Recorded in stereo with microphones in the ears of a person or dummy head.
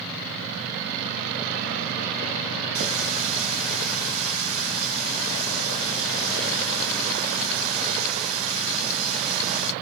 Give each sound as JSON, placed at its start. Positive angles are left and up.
{"t": 2.8, "sound": "a running tap", "side_deg": -75, "distance_m": 1.8}